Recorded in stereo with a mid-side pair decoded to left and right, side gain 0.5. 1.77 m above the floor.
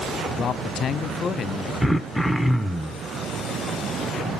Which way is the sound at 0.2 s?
50° left.